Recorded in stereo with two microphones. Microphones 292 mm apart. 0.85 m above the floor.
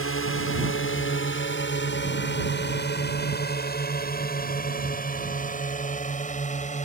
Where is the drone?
50° left (ahead or behind); by 6.8 s 25° left (ahead or behind).